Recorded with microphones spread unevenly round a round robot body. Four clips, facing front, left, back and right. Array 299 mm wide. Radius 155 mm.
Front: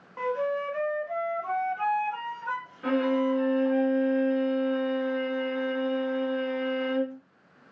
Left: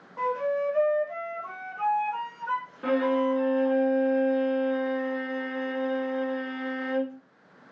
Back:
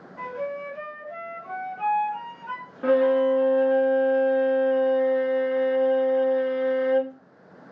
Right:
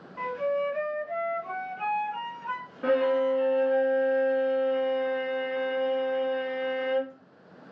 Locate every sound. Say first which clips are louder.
0.2 s a flute: left 1 dB, front 3 dB; 10° left, 1.5 m
2.8 s a violin: right 1 dB, back 6 dB; 175° right, 1.9 m